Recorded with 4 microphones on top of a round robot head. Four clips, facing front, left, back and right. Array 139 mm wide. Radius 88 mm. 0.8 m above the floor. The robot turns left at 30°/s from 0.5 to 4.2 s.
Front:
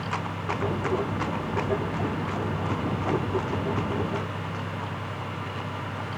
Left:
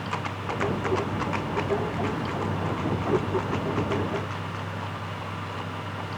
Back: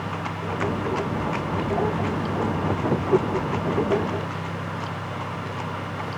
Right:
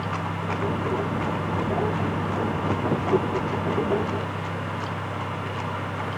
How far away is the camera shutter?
I don't hear a camera shutter.